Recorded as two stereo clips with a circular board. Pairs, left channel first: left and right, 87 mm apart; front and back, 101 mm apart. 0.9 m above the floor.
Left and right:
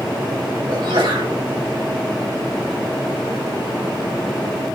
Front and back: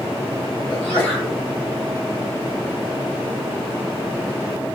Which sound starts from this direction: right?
A sneeze, at 0.7 s.